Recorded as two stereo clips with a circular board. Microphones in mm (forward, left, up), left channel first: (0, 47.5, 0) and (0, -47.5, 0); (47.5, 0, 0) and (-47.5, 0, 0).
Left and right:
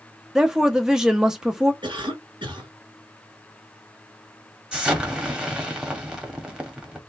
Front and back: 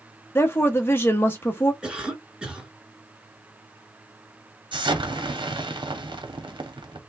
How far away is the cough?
About 2.5 m.